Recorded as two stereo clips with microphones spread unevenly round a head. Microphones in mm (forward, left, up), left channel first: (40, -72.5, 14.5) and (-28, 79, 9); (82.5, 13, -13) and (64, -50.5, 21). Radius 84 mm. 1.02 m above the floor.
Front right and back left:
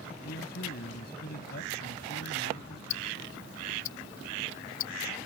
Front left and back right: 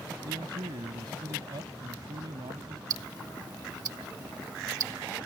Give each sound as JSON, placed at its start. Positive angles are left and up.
{"t": 0.2, "sound": "a man speaking", "azimuth_deg": -100}
{"t": 2.9, "sound": "ticking", "azimuth_deg": -90}